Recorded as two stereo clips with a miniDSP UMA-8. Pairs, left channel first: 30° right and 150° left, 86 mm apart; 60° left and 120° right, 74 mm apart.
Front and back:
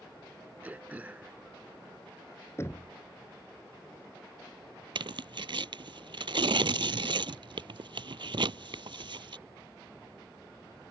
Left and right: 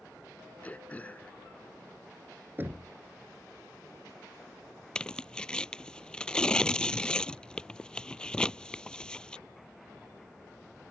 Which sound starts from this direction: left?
Throat clearing, at 0.6 s.